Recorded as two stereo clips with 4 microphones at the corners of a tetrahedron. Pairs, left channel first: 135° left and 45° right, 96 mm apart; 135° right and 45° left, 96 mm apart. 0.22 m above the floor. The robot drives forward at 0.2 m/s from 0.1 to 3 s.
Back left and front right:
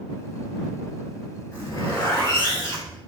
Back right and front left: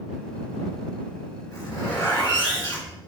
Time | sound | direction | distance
1.5 | a zipper | straight behind | 1.5 m